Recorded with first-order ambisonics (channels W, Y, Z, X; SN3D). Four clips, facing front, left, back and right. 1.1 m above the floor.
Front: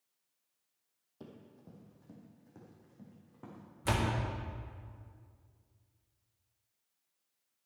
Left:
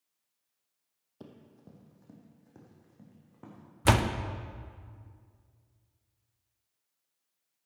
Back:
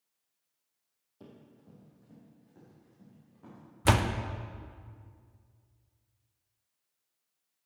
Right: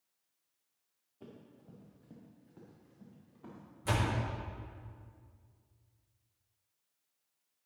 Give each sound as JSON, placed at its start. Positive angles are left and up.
{"t": 1.2, "sound": "running footsteps", "azimuth_deg": 75, "distance_m": 2.5}
{"t": 3.9, "sound": "a door slam", "azimuth_deg": 125, "distance_m": 0.6}